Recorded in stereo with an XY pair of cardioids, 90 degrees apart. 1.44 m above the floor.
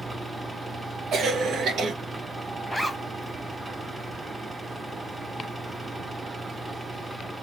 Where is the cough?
65° right, 1.2 m.